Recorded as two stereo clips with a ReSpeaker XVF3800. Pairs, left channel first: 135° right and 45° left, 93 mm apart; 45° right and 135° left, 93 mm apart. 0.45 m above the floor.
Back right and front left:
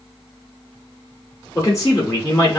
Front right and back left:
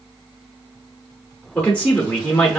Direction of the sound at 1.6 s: 115° right.